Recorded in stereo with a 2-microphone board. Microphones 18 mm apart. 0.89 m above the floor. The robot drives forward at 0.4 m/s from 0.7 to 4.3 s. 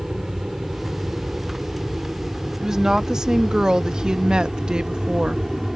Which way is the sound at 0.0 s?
20° right (ahead or behind).